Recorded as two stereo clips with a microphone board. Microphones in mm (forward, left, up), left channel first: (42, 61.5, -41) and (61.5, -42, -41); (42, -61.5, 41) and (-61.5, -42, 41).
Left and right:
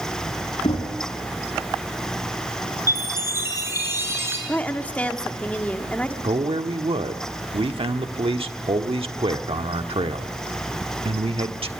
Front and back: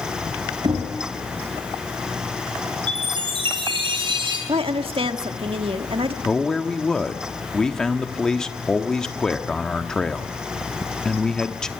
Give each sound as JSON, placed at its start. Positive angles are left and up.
{"t": 0.6, "sound": "knocking", "azimuth_deg": 125, "distance_m": 3.5}
{"t": 2.9, "sound": "a chime", "azimuth_deg": -145, "distance_m": 6.0}
{"t": 4.5, "sound": "a woman speaking", "azimuth_deg": 175, "distance_m": 1.4}
{"t": 6.2, "sound": "a man speaking", "azimuth_deg": -95, "distance_m": 1.2}